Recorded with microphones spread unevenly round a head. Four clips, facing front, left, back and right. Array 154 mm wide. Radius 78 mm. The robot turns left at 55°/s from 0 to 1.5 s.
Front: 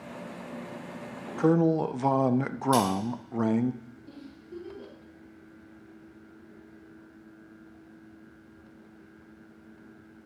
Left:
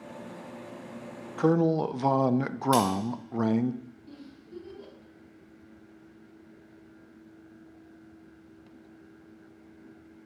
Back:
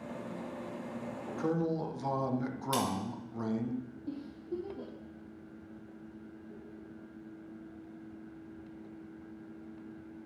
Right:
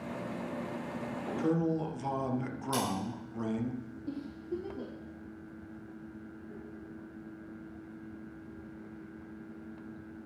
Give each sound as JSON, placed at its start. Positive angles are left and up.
{"t": 1.4, "sound": "a man speaking", "azimuth_deg": 55, "distance_m": 0.6}
{"t": 2.7, "sound": "scissors", "azimuth_deg": 100, "distance_m": 3.0}
{"t": 4.1, "sound": "a giggle", "azimuth_deg": -130, "distance_m": 2.5}